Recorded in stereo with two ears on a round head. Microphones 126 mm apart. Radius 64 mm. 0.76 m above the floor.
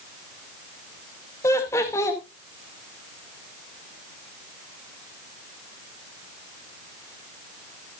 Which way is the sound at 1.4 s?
20° left (ahead or behind).